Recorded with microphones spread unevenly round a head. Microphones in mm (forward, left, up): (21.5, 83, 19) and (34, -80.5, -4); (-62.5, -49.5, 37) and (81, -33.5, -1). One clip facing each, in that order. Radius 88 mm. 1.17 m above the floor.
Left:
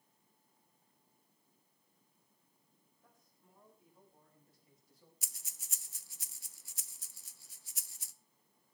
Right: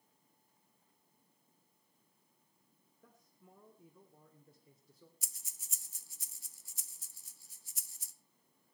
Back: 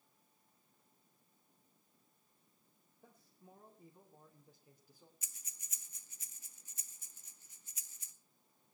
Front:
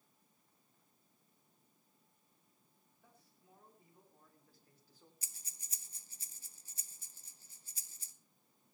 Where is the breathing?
60° left, 0.7 m.